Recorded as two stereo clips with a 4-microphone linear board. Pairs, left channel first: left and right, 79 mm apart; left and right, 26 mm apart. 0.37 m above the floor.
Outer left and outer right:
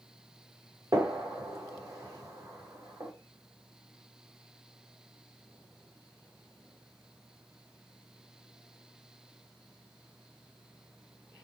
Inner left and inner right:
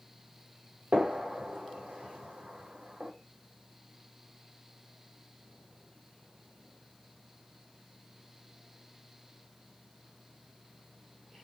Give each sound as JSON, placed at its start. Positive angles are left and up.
{"t": 0.9, "sound": "a gunshot", "side_deg": -45, "distance_m": 1.8}